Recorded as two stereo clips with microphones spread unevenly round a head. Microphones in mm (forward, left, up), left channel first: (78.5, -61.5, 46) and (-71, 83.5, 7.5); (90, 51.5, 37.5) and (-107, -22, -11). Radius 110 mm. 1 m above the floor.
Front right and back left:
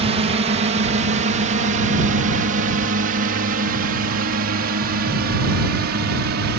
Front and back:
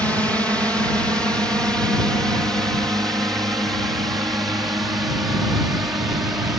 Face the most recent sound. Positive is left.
turn(degrees=120)